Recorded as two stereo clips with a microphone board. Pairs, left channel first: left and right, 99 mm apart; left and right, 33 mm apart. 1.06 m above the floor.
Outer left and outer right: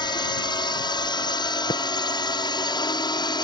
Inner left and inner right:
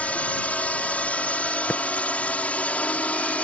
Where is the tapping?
65° left (ahead or behind).